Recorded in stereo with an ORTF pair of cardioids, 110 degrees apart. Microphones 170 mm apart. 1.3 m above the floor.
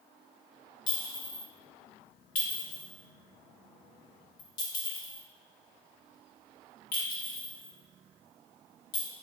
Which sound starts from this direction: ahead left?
A clink, at 0.9 s.